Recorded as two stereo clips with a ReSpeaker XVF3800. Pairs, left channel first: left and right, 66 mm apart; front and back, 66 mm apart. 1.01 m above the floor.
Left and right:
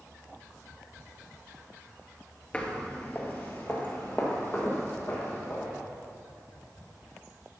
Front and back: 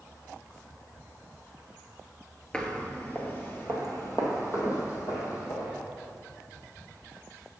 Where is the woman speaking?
I don't hear a woman speaking.